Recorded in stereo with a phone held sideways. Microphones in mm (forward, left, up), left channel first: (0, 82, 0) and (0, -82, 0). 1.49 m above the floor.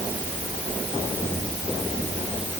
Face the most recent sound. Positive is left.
No sound to turn to.